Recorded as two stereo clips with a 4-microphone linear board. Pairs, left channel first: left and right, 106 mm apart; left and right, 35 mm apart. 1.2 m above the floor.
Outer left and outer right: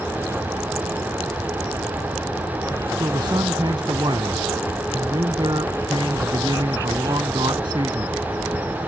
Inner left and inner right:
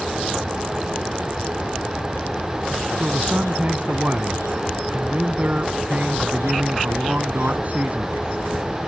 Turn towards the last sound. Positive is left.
turn(degrees=-45)  # may be behind; listen again after turning